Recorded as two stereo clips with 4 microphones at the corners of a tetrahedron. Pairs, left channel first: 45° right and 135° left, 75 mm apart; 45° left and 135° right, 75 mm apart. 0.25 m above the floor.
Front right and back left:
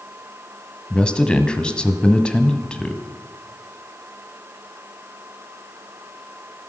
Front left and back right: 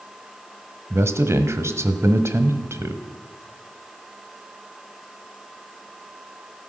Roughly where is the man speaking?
Behind right.